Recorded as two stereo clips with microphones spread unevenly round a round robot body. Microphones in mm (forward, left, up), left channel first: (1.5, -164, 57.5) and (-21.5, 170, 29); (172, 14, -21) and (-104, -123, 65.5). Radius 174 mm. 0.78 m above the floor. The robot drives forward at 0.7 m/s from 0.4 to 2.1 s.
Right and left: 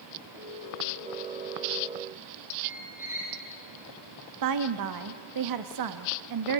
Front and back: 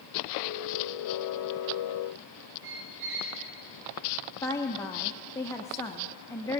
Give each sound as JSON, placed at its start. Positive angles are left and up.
{"t": 2.6, "sound": "a squeak", "azimuth_deg": 175, "distance_m": 8.5}
{"t": 4.4, "sound": "a woman speaking", "azimuth_deg": 100, "distance_m": 0.9}